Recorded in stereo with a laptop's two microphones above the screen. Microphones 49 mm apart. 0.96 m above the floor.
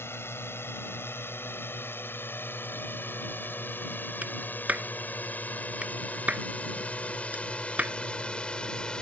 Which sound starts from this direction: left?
A drone, at 0.0 s.